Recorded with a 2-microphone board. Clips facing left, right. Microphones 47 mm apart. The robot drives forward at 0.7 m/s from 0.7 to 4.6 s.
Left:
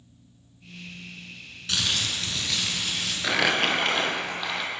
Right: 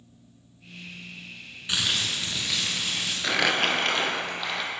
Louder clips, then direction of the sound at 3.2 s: Left 1 dB; 5° left (ahead or behind).